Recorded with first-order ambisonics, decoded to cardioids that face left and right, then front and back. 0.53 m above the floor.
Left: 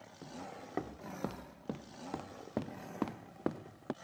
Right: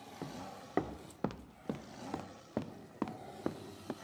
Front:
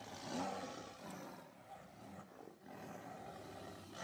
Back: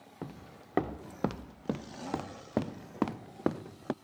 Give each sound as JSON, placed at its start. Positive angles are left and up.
{"t": 0.2, "sound": "footsteps", "azimuth_deg": -155}